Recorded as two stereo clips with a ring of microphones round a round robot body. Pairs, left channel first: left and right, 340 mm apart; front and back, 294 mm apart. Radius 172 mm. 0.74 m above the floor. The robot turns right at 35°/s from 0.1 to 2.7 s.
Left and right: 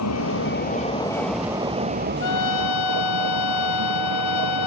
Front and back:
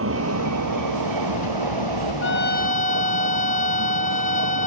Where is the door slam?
No door slam in this recording.